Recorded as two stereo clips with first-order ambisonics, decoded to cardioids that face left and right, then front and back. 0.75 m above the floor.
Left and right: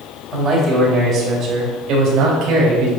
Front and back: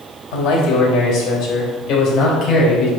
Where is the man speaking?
10° right, 3 m; by 2.9 s 50° right, 3.5 m.